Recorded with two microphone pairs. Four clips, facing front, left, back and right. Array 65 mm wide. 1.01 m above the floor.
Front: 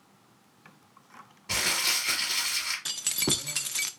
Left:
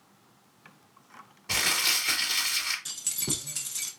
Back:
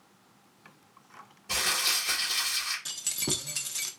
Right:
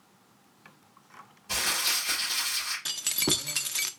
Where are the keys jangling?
50° right, 0.6 m.